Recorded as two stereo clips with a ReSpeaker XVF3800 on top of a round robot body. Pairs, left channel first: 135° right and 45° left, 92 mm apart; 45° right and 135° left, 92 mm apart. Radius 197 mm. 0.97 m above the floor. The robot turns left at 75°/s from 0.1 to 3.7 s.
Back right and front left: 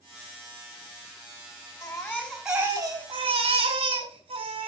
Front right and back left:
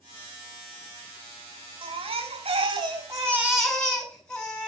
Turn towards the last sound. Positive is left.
turn(degrees=35)